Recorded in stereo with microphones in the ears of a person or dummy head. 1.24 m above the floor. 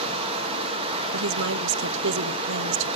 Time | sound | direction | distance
0.0 | running water | 35° right (ahead or behind) | 1.2 m
1.1 | a woman speaking | 65° right (ahead or behind) | 1.0 m